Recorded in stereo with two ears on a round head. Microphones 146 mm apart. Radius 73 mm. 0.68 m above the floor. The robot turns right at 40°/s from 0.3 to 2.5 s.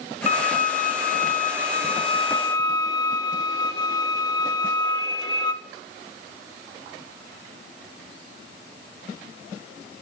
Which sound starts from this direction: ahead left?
A violin, at 0.3 s.